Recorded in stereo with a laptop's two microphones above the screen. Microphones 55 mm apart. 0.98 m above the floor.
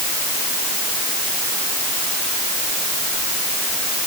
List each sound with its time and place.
Only background noise.